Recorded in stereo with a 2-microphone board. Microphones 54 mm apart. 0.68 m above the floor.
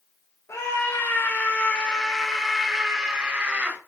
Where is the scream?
55° left (ahead or behind), 3.5 m; by 3.8 s 25° right (ahead or behind), 4.5 m.